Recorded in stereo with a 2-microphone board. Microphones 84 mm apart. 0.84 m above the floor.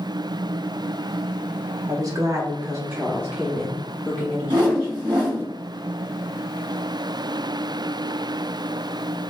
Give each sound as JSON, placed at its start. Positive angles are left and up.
{"t": 1.9, "sound": "a woman speaking", "side_deg": -45, "distance_m": 1.2}
{"t": 4.5, "sound": "a whoosh", "side_deg": -60, "distance_m": 1.8}